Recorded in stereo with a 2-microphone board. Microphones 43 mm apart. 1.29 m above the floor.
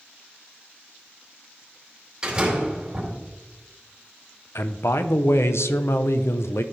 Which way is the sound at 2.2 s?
20° right (ahead or behind).